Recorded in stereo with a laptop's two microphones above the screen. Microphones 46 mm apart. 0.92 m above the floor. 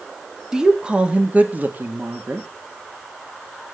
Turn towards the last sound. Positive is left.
turn(degrees=-50)  # may be behind; listen again after turning